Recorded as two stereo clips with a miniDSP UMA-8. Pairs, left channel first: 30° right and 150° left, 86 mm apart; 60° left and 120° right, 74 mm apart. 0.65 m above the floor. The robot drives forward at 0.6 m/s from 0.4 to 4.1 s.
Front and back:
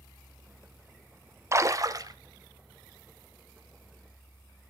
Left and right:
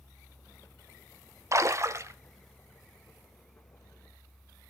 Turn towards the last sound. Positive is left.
turn(degrees=-175)